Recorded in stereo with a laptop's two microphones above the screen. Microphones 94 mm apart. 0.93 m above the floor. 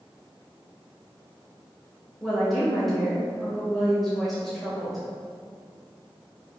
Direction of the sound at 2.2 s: Centre (ahead or behind).